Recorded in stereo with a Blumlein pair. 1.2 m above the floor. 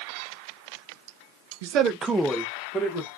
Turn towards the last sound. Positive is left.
turn(degrees=25)